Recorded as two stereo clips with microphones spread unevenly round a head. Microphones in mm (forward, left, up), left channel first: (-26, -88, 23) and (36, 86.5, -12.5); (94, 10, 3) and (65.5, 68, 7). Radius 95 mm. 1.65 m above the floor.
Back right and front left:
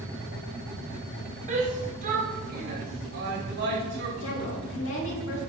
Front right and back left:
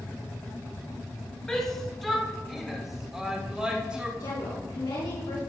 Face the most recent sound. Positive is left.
turn(degrees=-90)